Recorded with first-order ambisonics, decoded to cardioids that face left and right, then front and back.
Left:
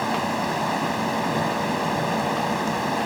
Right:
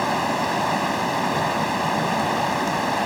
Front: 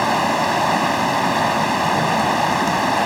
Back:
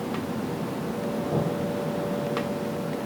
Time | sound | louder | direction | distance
0.0 | running water | right 2 dB, front 14 dB | 10° right | ?